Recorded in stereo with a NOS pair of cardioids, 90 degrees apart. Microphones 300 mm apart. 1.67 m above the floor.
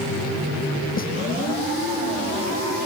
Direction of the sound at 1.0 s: 25° left.